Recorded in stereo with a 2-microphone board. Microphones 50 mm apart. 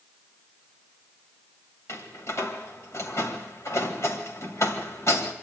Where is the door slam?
75° left (ahead or behind), 2.5 m.